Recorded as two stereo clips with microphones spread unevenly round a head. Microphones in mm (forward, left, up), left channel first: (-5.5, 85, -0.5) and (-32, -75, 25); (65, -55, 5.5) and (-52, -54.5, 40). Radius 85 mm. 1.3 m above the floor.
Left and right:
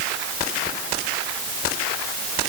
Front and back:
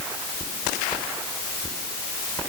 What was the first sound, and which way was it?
Only background noise.